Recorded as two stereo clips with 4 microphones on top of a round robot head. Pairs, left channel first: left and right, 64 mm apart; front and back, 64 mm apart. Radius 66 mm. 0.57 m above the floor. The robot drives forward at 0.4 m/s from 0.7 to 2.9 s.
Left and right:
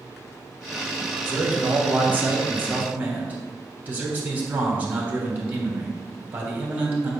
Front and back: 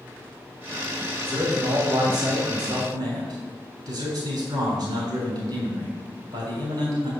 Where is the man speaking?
145° right, 2.5 m; by 7.1 s 150° right, 3.5 m.